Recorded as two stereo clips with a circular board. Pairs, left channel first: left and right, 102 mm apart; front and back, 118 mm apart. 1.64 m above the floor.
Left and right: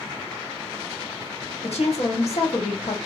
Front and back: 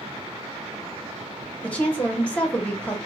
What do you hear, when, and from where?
1.6 s a woman speaking: 80° left, 1.4 m